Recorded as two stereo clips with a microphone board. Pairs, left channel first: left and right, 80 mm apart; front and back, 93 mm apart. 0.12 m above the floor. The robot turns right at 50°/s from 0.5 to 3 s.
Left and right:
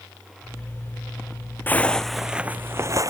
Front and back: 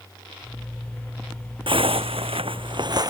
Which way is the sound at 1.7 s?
155° left.